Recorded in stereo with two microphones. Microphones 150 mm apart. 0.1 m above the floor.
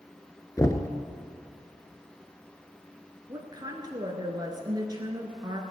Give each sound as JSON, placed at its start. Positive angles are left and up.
{"t": 0.6, "sound": "knocking", "side_deg": 20, "distance_m": 0.9}
{"t": 3.3, "sound": "a woman speaking", "side_deg": -30, "distance_m": 1.5}